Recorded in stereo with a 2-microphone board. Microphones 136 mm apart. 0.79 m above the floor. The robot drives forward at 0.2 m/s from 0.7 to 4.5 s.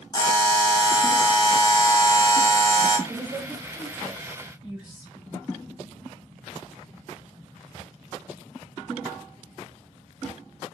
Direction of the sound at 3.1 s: 10° right (ahead or behind).